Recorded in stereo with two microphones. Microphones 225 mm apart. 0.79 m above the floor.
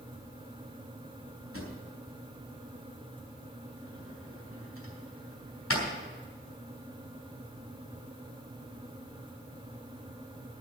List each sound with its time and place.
1.5 s a drawer: 85° left, 3.5 m